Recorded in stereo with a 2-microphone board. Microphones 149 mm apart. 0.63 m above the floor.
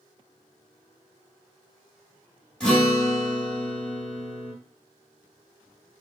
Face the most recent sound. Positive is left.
turn(degrees=5)  # may be behind; listen again after turning